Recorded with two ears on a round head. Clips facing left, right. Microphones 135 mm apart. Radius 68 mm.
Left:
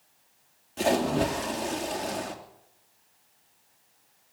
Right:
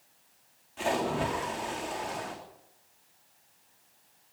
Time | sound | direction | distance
0.8 | a splash | 45° left (ahead or behind) | 3.5 m